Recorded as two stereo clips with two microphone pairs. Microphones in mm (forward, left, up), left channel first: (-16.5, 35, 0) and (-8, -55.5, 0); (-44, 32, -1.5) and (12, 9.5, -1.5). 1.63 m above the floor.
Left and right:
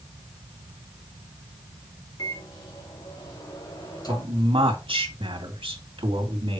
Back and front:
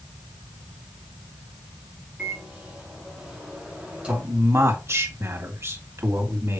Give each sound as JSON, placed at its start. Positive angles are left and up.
{"t": 2.2, "sound": "a microwave", "azimuth_deg": 50, "distance_m": 4.0}
{"t": 4.1, "sound": "a man speaking", "azimuth_deg": -65, "distance_m": 2.5}